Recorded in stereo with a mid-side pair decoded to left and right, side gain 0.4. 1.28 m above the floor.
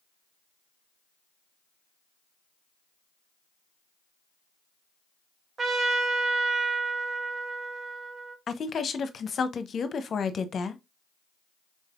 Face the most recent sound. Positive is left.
turn(degrees=50)